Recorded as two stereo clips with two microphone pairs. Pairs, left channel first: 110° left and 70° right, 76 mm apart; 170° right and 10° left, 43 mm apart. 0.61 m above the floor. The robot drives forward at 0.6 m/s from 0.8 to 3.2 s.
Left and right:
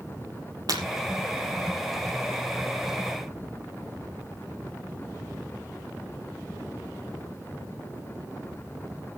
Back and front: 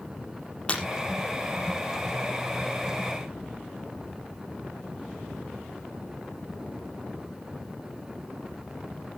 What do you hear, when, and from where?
0.7 s breaking glass: 105° right, 6 m